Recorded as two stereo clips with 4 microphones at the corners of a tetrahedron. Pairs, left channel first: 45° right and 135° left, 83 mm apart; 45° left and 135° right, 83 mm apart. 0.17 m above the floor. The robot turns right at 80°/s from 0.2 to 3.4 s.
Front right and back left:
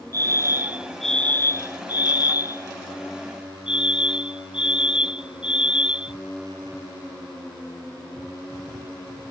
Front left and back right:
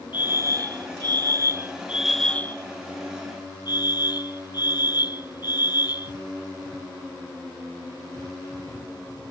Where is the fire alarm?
160° left; by 6.1 s 60° left.